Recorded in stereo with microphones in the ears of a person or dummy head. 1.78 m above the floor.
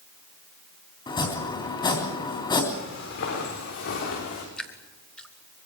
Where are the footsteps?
60° left (ahead or behind), 8.5 m; by 4.5 s 55° left (ahead or behind), 6.5 m.